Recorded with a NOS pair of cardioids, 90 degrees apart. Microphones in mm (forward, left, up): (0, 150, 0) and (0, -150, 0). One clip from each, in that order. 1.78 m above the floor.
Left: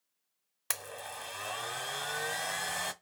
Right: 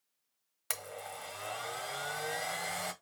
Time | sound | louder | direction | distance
0.7 | a blender | left 2 dB | 20° left | 0.9 m